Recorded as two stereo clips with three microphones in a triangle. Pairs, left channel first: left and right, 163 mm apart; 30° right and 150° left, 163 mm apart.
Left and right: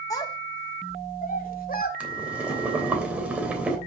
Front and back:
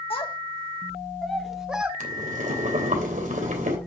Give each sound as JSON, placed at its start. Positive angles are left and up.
{"t": 0.1, "sound": "a child speaking", "azimuth_deg": 20, "distance_m": 1.1}
{"t": 2.0, "sound": "boiling", "azimuth_deg": -170, "distance_m": 3.0}